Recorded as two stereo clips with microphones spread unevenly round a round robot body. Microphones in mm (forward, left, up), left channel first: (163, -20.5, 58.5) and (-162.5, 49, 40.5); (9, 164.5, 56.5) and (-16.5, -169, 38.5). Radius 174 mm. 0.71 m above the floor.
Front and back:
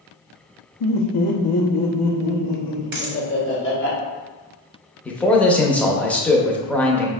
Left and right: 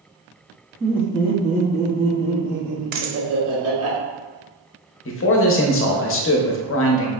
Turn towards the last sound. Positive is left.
turn(degrees=75)